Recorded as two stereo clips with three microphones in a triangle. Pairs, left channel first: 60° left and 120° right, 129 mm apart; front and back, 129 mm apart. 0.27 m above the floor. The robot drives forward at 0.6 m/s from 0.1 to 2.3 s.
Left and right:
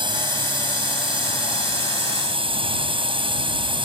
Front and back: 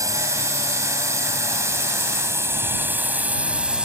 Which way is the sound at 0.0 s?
135° right.